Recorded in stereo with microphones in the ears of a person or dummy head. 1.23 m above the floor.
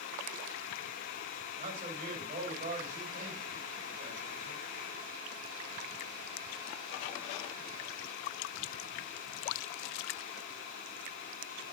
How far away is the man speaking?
About 6.5 m.